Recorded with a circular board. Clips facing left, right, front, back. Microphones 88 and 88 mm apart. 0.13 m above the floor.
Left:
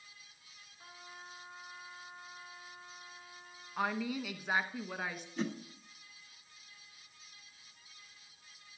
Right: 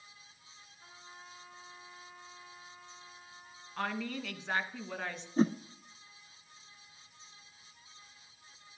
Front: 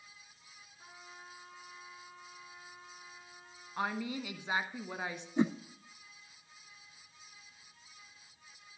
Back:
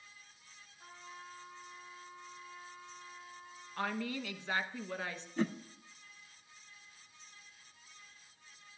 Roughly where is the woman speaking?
Ahead left.